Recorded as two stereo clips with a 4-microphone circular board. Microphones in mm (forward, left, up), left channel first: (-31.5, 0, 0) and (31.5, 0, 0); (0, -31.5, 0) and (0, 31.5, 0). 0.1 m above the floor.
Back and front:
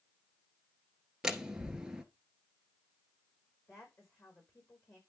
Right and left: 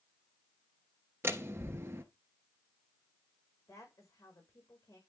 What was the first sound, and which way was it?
A door slam, 75° left.